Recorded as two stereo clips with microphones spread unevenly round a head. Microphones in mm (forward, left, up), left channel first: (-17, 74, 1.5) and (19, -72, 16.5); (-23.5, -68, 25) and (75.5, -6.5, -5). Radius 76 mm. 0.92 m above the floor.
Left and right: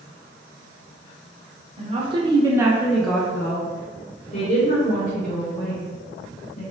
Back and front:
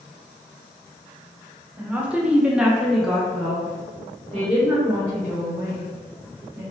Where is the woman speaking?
30° right, 1.0 m; by 6.6 s 130° left, 2.0 m.